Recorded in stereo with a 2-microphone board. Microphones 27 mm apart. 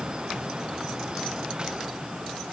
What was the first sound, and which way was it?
Only background noise.